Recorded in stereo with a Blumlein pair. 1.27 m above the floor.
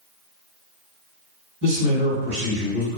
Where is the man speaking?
50° right, 1.7 m.